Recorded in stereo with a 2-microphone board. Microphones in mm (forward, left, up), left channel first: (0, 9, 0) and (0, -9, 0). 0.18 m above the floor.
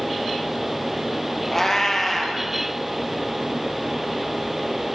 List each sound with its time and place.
1.5 s a cat meowing: 20° left (ahead or behind), 2 m